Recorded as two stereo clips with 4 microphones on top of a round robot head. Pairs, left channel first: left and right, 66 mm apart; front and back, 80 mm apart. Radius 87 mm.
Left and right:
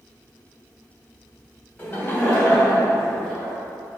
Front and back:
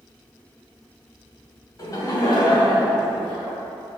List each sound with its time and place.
1.8 s laughter: 30° left, 1.4 m; by 3.5 s 20° left, 2.5 m